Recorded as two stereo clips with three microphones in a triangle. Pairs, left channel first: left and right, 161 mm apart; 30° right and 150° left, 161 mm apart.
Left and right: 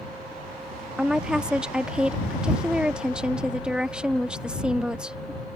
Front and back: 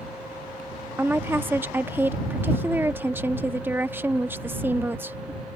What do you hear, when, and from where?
1.0 s a woman speaking: 165° right